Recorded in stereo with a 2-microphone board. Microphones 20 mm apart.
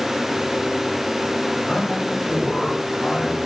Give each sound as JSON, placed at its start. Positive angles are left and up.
{"t": 1.7, "sound": "a man speaking", "side_deg": 30, "distance_m": 4.0}